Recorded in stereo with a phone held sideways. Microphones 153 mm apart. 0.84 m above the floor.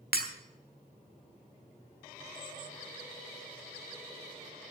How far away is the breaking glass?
About 1.3 m.